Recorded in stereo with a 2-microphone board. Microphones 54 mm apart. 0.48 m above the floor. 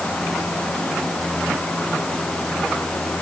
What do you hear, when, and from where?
Only background noise.